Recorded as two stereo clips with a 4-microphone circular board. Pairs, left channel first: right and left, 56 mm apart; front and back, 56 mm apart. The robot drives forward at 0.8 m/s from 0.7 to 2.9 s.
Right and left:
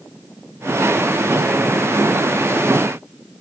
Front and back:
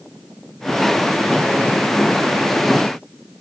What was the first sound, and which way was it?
Only background noise.